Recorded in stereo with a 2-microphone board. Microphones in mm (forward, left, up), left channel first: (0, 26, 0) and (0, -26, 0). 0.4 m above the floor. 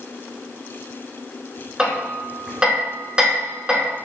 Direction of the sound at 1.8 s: 15° right (ahead or behind).